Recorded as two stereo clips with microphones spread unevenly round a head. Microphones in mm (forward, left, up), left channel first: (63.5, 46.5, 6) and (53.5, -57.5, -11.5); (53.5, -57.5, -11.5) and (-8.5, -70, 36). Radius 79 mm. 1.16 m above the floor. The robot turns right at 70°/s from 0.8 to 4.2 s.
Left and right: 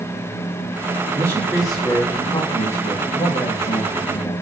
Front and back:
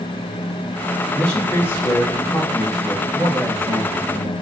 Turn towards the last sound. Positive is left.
turn(degrees=165)